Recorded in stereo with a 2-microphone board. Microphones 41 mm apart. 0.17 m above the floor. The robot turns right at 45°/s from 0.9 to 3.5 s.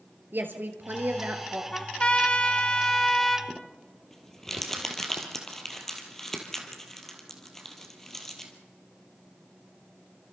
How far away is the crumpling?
About 2.5 m.